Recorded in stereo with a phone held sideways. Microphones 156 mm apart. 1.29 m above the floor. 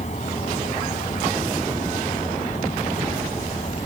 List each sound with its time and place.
0.0 s a fan: 50° left (ahead or behind)